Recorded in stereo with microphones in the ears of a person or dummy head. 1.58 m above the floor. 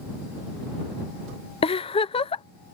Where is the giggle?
25° left (ahead or behind).